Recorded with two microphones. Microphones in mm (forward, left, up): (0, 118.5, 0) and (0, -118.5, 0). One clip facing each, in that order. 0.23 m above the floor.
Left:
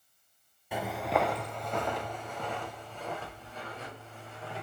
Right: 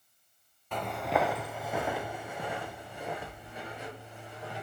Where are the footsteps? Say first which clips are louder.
Even; 10° left (ahead or behind), 1.0 m; by 4.6 s 15° right (ahead or behind), 6 m.